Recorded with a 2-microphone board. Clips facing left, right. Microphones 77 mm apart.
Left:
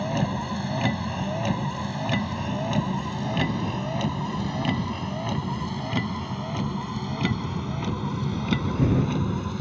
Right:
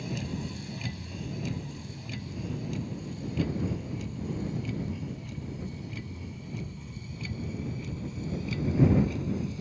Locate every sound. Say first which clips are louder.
0.0 s a vehicle: left 9 dB; 65° left (ahead or behind); by 9.6 s 70° left (ahead or behind)